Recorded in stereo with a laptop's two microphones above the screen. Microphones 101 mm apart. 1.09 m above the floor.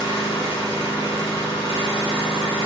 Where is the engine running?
70° left (ahead or behind), 1.3 m.